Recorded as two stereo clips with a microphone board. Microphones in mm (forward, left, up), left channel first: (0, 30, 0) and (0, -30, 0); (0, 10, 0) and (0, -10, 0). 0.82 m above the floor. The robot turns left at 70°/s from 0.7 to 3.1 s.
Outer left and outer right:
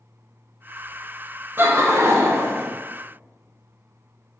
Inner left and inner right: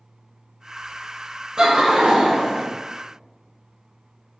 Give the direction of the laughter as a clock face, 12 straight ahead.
2 o'clock.